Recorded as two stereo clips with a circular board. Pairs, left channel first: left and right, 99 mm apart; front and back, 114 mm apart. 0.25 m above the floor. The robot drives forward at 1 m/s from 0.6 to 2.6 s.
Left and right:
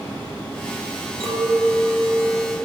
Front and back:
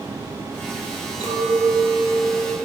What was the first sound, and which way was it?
A clink, 155° left.